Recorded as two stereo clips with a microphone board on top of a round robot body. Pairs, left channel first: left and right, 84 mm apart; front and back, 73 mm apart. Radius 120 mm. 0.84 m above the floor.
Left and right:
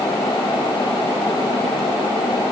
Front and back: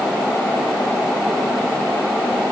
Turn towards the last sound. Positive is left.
No sound to turn to.